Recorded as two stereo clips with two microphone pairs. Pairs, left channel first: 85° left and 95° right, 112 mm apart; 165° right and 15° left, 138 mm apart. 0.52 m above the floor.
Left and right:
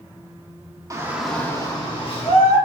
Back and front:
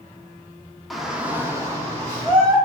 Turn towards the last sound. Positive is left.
turn(degrees=80)